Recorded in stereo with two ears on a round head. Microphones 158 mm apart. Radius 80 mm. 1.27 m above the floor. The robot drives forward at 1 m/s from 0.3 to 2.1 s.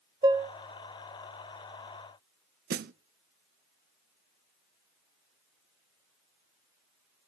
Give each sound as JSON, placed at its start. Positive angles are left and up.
{"t": 0.2, "sound": "dishes clattering", "side_deg": -20, "distance_m": 0.7}
{"t": 2.7, "sound": "a snare drum", "side_deg": -60, "distance_m": 0.6}